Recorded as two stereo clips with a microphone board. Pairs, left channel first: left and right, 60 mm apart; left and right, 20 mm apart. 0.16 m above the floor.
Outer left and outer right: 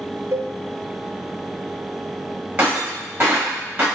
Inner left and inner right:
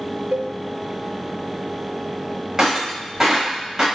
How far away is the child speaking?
No child speaking in this recording.